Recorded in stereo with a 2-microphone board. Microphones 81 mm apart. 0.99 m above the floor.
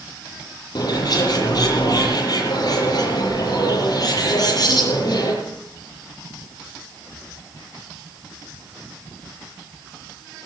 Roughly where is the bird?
Left.